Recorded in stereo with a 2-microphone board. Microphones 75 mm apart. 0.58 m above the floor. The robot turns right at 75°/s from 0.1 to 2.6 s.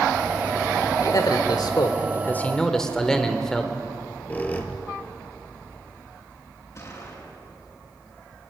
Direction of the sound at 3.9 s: 20° left (ahead or behind).